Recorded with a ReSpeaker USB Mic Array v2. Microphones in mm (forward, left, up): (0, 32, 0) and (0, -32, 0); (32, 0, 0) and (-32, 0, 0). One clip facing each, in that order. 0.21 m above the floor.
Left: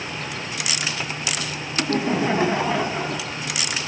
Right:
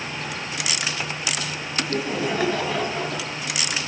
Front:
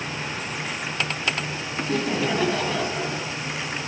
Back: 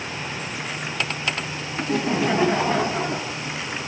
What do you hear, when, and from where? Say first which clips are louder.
1.8 s laughter: left 4 dB, back 2 dB; 105° left, 1.5 m; by 3.4 s 165° left, 1.7 m